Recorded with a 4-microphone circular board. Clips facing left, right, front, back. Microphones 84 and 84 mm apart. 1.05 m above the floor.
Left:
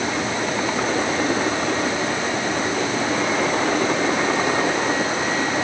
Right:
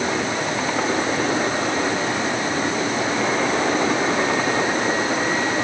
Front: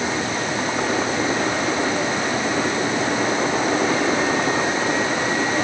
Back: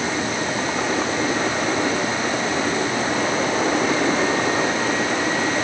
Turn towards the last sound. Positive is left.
No sound to turn to.